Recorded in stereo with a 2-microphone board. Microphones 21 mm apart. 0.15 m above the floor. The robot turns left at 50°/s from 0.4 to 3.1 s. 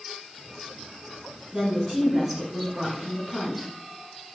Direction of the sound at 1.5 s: 20° right (ahead or behind).